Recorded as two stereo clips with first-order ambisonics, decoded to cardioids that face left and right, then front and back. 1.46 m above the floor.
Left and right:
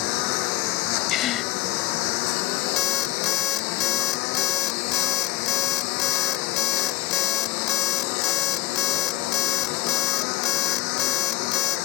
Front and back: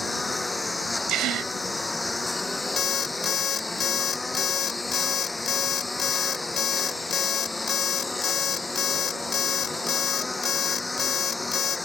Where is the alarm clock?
55° left.